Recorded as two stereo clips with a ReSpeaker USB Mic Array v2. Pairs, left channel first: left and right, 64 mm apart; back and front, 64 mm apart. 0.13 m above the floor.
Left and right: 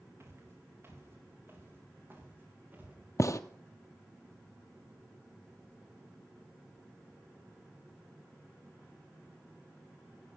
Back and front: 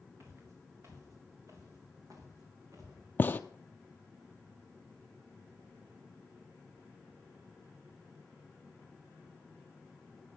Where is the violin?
I don't hear a violin.